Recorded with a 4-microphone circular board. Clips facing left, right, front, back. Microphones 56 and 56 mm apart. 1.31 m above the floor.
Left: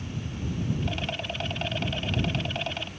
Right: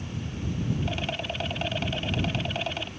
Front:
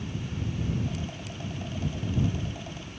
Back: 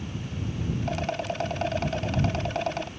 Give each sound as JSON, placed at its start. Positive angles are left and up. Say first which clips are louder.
{"t": 0.8, "sound": "a rattle", "louder": "right 1 dB, back 7 dB", "azimuth_deg": 180}